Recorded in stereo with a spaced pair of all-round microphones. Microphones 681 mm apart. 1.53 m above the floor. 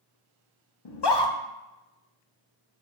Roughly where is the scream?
Left.